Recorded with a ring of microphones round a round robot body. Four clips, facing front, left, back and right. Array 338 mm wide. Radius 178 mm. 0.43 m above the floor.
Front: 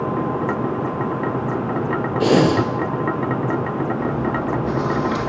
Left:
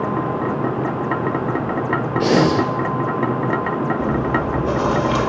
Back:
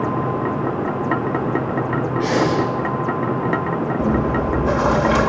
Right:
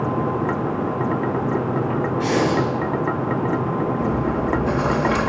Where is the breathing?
35° left, 3 m.